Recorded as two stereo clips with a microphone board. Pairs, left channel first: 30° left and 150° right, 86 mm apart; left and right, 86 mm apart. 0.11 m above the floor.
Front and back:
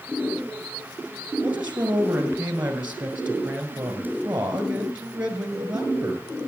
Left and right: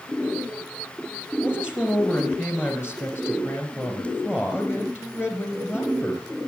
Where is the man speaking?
145° left, 1.8 m.